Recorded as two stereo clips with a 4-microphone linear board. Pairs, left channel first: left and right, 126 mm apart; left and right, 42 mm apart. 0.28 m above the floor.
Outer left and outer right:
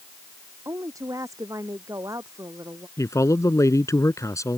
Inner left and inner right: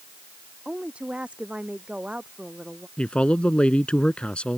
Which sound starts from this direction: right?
A woman speaking, at 0.7 s.